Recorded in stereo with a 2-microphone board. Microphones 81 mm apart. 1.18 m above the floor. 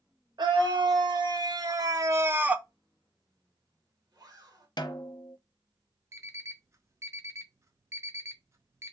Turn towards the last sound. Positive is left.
turn(degrees=-35)  # may be behind; listen again after turning